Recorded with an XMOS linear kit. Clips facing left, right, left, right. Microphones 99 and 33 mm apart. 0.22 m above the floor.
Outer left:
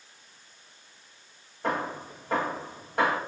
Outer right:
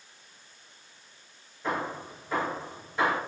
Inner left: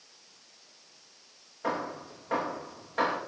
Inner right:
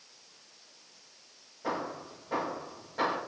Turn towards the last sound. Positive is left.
turn(degrees=65)  # may be behind; listen again after turning